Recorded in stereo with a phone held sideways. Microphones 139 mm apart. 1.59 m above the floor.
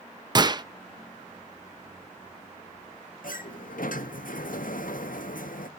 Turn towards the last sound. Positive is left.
turn(degrees=75)  # may be behind; listen again after turning